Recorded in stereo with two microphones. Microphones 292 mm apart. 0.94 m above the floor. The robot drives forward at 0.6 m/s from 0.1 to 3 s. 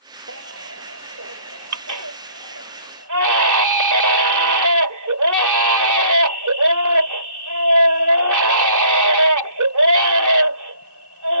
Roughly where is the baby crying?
Right.